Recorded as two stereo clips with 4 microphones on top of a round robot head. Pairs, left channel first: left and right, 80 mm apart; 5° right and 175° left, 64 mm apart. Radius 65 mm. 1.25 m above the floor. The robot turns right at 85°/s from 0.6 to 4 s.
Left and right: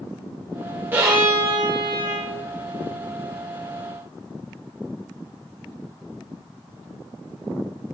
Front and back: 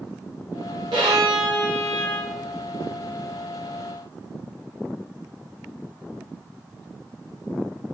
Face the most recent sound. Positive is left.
turn(degrees=110)